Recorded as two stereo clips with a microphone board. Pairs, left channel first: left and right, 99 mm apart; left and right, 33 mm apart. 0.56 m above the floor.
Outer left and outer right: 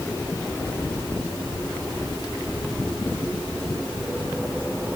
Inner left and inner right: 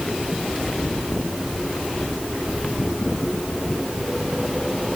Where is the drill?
No drill in this recording.